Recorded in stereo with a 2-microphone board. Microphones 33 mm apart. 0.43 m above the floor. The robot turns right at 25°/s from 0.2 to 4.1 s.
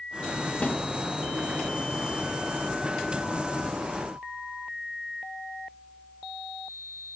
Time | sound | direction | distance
0.6 | a snare drum | 50° left (ahead or behind) | 1.8 m